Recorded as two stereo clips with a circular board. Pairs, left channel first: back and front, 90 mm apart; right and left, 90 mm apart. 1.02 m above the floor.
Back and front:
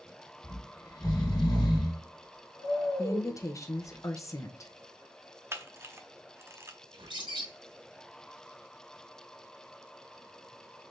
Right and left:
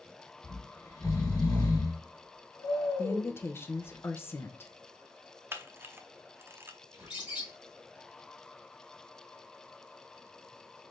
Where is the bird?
15° left, 2.5 m.